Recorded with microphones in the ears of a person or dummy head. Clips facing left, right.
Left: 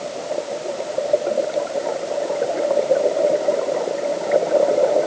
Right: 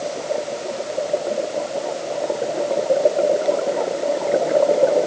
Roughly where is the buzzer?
I don't hear a buzzer.